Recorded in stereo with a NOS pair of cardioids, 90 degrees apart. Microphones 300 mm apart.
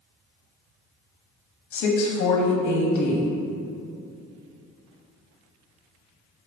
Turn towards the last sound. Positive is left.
turn(degrees=65)